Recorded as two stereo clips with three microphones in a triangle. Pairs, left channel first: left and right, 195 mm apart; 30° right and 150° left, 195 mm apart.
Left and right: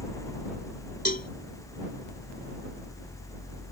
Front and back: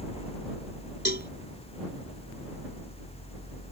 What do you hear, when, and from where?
1.1 s a cowbell: 125° left